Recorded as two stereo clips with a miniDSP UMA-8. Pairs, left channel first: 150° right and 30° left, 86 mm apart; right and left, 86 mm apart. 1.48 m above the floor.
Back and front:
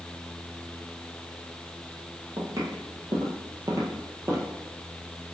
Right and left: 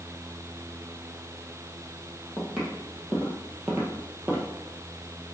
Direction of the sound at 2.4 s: Straight ahead.